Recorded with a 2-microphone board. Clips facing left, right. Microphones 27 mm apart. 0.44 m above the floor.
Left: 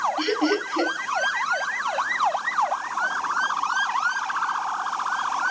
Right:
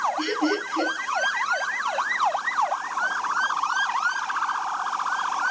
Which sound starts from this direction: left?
Laughter, at 0.2 s.